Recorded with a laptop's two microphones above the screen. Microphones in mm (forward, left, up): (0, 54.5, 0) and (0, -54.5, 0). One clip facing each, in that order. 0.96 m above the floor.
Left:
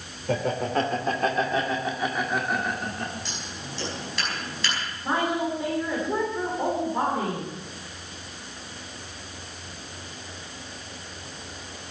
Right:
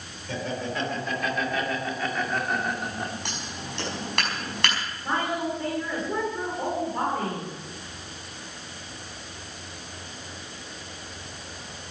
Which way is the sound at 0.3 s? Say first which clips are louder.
Left 5 dB; 60° left (ahead or behind).